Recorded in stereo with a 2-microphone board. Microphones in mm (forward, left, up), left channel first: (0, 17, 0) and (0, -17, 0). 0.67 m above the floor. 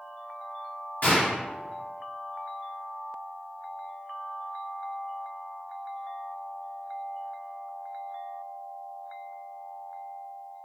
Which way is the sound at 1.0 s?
55° left (ahead or behind).